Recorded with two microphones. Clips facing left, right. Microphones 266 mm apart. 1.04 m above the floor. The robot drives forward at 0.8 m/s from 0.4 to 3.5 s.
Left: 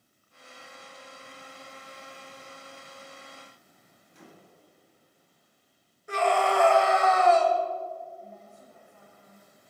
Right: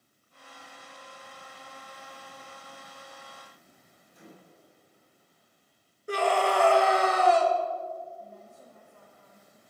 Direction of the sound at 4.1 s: 85° left.